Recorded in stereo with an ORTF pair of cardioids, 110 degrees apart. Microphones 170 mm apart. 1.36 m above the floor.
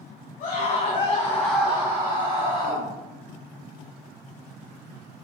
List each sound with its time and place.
0.4 s a scream: 55° left, 1.7 m; by 2.9 s 45° right, 2 m